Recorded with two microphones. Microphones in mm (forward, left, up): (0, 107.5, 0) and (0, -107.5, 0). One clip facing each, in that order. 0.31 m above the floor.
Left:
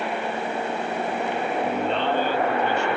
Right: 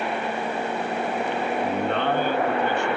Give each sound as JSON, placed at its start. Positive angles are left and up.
{"t": 1.6, "sound": "a man speaking", "side_deg": -55, "distance_m": 2.5}